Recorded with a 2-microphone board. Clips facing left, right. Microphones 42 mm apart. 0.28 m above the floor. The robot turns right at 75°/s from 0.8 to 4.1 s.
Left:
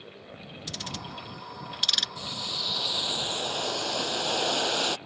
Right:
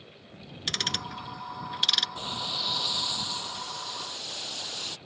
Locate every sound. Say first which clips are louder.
0.7 s ticking: right 7 dB; 75° right (ahead or behind); by 2.1 s 5° right (ahead or behind)
2.2 s boiling: right 1 dB; 40° right; by 5.0 s 105° left